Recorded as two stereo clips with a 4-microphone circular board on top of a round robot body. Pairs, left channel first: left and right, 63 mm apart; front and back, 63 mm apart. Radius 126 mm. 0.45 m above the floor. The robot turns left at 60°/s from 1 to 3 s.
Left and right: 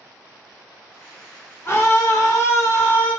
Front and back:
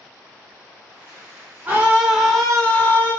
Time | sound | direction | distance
1.6 | a scream | 130° left | 1.4 m